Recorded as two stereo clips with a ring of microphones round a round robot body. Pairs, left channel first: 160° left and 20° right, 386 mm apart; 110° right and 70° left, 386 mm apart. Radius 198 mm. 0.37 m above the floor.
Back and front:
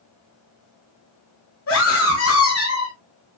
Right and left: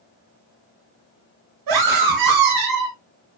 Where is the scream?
105° left, 3.5 m.